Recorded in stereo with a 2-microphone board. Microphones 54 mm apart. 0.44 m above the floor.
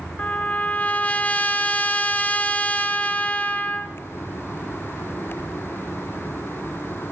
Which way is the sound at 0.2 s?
30° left (ahead or behind).